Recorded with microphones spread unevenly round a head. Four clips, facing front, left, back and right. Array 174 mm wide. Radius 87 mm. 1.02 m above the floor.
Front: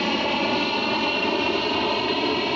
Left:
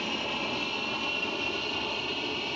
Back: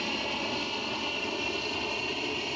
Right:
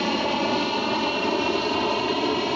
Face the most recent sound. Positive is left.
turn(degrees=-45)